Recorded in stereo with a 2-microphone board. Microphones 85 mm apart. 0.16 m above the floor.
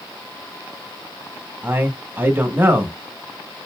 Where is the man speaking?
20° right (ahead or behind), 1.2 m.